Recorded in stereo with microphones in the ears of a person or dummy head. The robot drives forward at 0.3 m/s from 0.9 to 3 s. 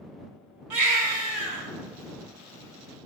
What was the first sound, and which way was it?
A baby crying, 10° right (ahead or behind).